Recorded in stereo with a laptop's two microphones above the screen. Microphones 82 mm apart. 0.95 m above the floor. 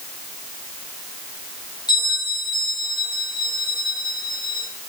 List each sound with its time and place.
1.9 s a bell: 65° left (ahead or behind), 5 m